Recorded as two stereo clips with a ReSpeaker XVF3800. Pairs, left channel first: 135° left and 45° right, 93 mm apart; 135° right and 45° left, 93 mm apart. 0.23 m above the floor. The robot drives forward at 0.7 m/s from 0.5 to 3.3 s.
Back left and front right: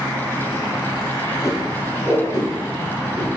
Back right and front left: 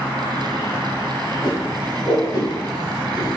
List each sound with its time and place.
1.4 s a whoosh: 175° right, 1.6 m